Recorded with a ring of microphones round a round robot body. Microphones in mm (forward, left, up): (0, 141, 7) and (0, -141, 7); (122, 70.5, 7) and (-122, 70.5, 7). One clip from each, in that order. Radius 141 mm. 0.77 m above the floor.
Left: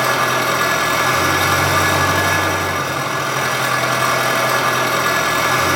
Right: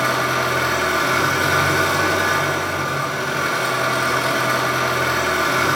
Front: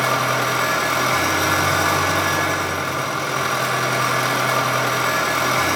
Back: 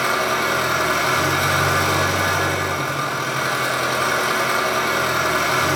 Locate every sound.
0.0 s an engine running: 50° left, 2.5 m